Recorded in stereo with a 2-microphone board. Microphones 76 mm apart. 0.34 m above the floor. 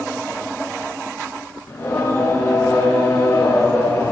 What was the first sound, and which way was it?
Singing, 25° left (ahead or behind).